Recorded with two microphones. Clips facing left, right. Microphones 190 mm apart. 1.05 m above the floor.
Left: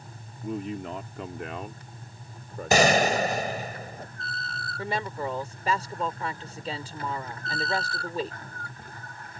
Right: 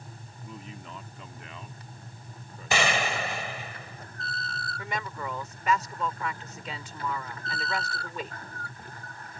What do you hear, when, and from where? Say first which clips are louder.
0.4 s a man speaking: left 12 dB; 70° left (ahead or behind); by 3.3 s 65° left (ahead or behind)
2.7 s a gunshot: left 7 dB; 45° left (ahead or behind)
4.8 s a woman speaking: left 5 dB; 35° left (ahead or behind)